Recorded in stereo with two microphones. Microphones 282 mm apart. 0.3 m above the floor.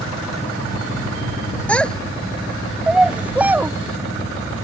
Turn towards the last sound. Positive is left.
turn(degrees=-5)  # may be behind; listen again after turning